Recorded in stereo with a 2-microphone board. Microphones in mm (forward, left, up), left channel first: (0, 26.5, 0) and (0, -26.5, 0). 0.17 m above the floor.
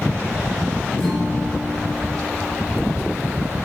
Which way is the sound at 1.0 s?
15° left (ahead or behind).